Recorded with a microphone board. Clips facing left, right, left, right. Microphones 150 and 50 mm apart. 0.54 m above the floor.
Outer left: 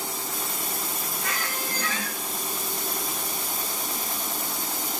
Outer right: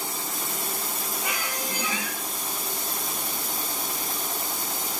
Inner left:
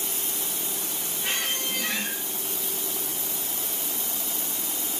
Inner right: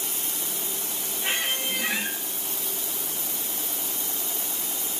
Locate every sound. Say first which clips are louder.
1.2 s a squeak: even, inner right 2 dB; 15° right (ahead or behind), 3 m